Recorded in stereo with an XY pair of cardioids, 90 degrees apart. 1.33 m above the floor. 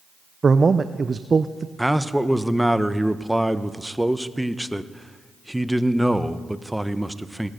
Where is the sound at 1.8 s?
5° right, 0.8 m.